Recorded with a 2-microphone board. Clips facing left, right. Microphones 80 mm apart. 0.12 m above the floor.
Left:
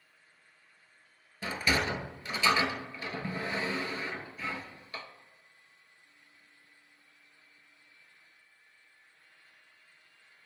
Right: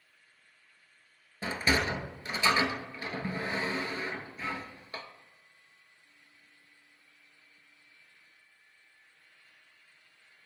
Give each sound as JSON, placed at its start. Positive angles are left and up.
{"t": 1.4, "sound": "a sliding door", "side_deg": -30, "distance_m": 0.5}